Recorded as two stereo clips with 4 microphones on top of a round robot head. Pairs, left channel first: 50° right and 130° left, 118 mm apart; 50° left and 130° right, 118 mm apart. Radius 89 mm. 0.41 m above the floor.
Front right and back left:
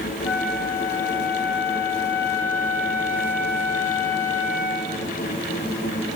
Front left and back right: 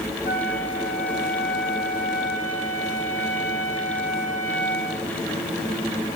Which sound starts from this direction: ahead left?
A flute, at 0.2 s.